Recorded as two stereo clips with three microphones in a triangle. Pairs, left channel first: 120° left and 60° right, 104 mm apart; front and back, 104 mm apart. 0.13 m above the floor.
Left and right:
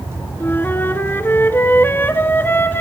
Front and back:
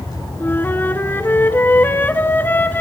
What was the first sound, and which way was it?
A flute, 60° left.